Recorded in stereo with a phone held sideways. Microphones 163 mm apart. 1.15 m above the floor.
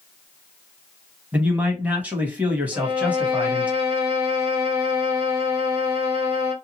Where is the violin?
30° right (ahead or behind), 1.6 m.